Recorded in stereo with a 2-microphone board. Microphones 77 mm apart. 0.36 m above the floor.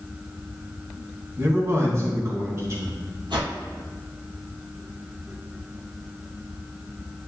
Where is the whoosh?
80° right, 2.5 m.